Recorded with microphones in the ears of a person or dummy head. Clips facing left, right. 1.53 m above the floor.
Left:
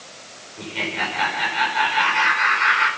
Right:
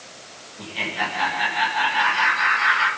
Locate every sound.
0.6 s laughter: 45° left (ahead or behind), 5.5 m